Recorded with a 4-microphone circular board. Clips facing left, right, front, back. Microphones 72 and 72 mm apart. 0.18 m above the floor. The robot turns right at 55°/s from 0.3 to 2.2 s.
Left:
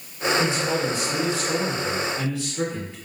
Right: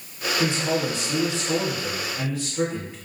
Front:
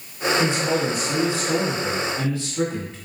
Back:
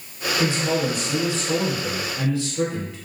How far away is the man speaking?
About 1.0 m.